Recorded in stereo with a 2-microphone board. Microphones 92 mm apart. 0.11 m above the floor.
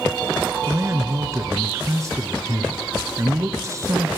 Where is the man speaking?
35° right (ahead or behind), 1.3 m.